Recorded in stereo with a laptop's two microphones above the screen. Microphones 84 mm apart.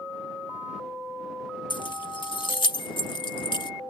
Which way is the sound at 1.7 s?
70° left (ahead or behind).